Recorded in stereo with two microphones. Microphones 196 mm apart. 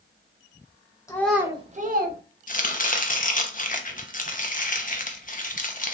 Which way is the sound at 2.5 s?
45° left (ahead or behind).